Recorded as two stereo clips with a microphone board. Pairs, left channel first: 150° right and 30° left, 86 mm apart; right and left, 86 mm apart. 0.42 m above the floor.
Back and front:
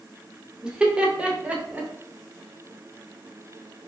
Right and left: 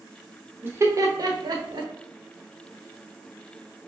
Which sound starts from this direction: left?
Laughter, at 0.6 s.